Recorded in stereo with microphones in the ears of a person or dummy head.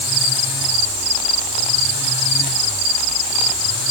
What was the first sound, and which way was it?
Only background noise.